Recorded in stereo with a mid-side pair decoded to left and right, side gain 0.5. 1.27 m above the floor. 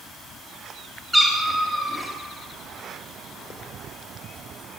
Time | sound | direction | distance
1.1 | a cat meowing | straight ahead | 3 m